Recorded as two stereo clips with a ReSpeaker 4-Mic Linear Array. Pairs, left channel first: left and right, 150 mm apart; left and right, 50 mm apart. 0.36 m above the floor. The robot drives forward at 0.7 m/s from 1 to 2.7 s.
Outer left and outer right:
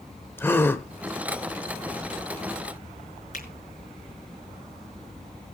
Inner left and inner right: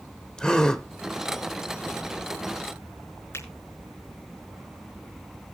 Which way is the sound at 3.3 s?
60° left (ahead or behind).